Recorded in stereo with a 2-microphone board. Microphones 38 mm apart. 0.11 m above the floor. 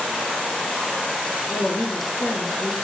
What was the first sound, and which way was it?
A woman speaking, 70° left (ahead or behind).